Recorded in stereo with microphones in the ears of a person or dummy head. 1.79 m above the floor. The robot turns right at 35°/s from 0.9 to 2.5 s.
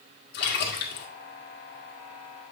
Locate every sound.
0.3 s a splash: 50° left (ahead or behind), 2 m; by 1.1 s 55° left (ahead or behind), 2 m